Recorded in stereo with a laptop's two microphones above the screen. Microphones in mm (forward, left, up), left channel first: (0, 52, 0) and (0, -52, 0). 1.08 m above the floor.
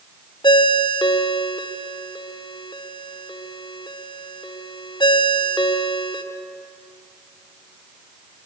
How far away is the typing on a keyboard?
I don't hear typing on a keyboard.